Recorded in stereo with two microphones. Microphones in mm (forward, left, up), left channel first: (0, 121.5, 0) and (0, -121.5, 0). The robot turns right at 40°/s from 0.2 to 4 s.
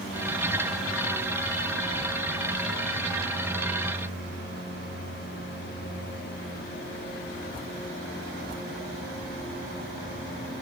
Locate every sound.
Only background noise.